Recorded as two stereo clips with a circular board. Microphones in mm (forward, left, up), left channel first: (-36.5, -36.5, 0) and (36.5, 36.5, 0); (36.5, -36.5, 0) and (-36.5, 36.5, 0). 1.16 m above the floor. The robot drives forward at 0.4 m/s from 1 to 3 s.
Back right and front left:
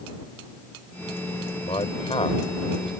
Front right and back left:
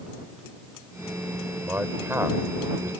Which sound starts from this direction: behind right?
A man speaking, at 1.6 s.